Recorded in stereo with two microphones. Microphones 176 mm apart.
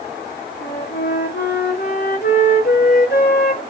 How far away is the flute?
About 4.5 m.